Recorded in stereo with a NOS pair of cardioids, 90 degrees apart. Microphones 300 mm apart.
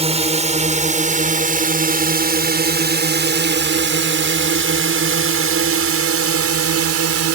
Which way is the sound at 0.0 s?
20° right.